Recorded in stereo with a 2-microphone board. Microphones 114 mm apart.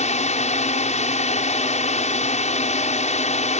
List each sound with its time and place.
0.0 s a drone: 75° left (ahead or behind)